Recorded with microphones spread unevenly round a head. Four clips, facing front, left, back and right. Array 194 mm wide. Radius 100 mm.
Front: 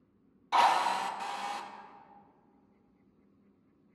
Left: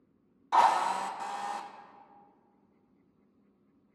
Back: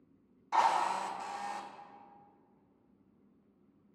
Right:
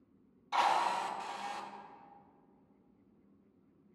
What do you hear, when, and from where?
0.5 s a drill: 70° left, 0.8 m